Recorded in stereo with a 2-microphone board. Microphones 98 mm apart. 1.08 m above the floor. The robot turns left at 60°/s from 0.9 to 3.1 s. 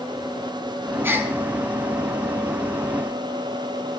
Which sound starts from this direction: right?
A gasp, at 1.0 s.